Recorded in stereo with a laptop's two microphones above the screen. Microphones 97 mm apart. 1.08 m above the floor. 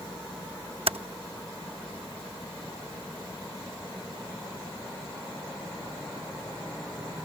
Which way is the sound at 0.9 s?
75° right (ahead or behind).